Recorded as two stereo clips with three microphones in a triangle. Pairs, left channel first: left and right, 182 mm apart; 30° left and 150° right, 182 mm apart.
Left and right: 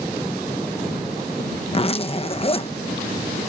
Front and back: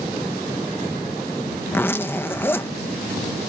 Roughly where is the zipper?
Left.